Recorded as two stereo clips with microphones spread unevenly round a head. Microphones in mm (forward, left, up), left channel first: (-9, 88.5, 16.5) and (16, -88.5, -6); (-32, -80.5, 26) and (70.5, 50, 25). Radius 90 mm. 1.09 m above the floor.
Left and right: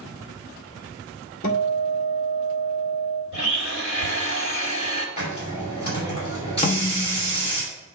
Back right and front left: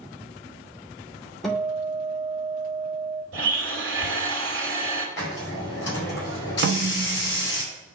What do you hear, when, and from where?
1.4 s a guitar: 145° left, 1.2 m
3.3 s a blender: 75° left, 2.5 m
5.2 s a hiss: 160° left, 4.5 m
6.6 s a snare drum: 55° left, 0.6 m